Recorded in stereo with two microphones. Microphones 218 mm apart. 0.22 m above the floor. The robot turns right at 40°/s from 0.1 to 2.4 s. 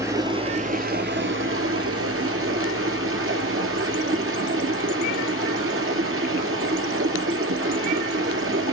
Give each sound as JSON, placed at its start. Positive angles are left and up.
{"t": 0.0, "sound": "running water", "azimuth_deg": -165, "distance_m": 0.7}